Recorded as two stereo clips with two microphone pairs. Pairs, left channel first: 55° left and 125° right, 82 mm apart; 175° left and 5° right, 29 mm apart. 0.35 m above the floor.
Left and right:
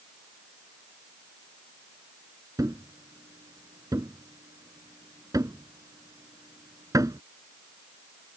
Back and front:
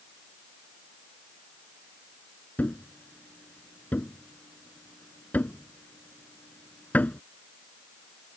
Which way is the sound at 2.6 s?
165° right.